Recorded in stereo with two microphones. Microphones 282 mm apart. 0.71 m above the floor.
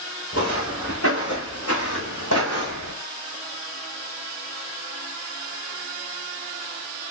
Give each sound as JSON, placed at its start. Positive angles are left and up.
{"t": 0.3, "sound": "footsteps", "side_deg": 55, "distance_m": 4.0}